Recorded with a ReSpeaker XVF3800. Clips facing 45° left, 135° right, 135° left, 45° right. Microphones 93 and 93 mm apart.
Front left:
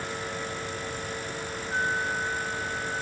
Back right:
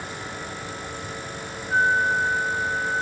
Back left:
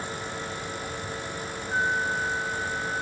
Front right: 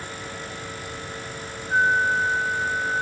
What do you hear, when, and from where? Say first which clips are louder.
1.7 s a flute: back right 8 dB, front right 6 dB; 95° right